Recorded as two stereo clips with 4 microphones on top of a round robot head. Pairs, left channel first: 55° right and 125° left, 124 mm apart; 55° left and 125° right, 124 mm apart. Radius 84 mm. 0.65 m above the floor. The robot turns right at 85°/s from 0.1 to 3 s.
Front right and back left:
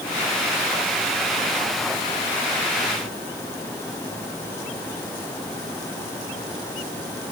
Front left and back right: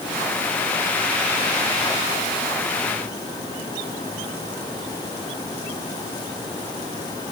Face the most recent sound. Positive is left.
No sound to turn to.